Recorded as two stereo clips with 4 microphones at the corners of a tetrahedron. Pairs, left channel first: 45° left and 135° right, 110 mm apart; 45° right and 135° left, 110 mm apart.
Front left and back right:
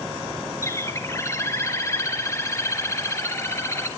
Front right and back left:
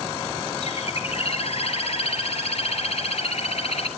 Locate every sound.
0.6 s a bird: 20° right, 1.7 m